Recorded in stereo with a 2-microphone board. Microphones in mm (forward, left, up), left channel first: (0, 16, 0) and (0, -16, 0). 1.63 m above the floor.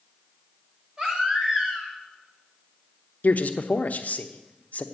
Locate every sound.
1.0 s a baby crying: 25° right (ahead or behind), 3 m
3.2 s a man speaking: 55° left (ahead or behind), 0.9 m